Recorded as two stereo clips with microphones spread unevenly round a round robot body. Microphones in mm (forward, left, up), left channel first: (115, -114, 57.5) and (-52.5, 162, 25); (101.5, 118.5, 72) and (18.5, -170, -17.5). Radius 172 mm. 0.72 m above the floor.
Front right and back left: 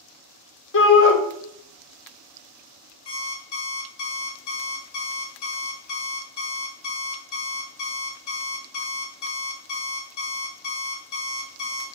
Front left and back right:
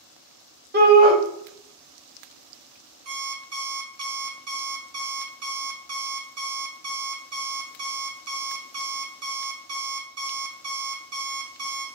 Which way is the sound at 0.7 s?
100° right.